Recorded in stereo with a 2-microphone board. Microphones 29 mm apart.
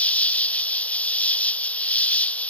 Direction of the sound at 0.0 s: 60° left (ahead or behind).